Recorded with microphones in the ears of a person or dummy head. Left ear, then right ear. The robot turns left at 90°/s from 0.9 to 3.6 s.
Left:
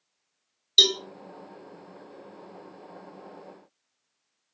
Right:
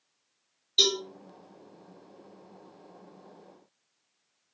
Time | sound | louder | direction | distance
0.8 | a cowbell | left 5 dB | 55° left (ahead or behind) | 1.4 m